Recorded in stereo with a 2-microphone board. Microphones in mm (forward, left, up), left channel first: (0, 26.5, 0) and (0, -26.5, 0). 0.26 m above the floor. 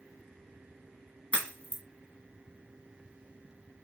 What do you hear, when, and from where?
1.3 s a crack: 25° left (ahead or behind), 1.5 m